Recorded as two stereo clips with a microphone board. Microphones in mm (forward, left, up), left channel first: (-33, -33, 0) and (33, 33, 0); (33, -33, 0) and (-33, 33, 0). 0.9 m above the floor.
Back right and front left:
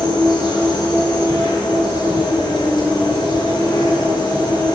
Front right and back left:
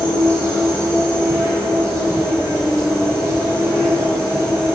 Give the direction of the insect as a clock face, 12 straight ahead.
6 o'clock.